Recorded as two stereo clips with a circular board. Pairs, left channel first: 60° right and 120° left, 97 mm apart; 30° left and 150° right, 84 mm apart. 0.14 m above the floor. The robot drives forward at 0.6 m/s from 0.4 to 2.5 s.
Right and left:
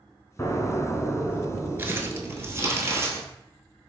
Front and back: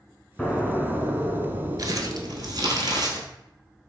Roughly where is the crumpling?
Behind.